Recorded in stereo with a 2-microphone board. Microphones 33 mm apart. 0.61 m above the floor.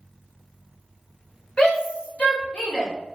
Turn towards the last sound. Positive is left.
turn(degrees=55)  # may be behind; listen again after turning